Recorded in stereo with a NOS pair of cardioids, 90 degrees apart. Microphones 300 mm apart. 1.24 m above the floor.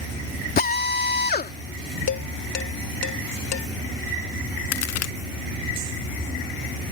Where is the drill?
30° left.